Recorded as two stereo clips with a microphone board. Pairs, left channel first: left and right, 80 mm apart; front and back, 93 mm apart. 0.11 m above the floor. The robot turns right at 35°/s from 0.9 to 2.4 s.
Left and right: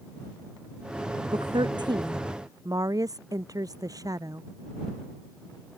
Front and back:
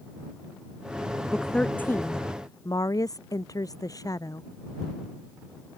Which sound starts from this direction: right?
A woman speaking, at 1.3 s.